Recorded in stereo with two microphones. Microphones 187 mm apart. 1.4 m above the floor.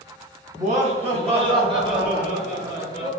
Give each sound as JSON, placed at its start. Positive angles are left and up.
{"t": 0.6, "sound": "laughter", "side_deg": -40, "distance_m": 1.9}